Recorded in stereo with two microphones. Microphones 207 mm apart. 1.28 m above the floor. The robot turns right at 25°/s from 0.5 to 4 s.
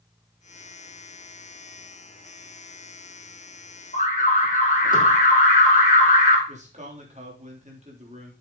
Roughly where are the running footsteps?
No running footsteps in this recording.